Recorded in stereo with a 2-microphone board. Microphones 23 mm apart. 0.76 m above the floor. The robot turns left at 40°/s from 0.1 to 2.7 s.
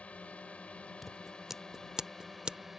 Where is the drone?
100° left; by 2.8 s 5° right.